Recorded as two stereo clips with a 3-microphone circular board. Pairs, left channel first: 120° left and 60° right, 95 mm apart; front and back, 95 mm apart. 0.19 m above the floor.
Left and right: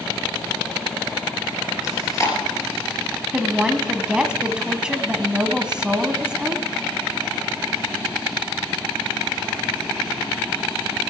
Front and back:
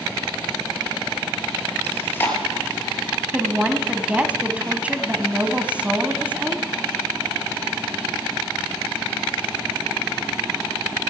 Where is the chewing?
65° left, 3 m.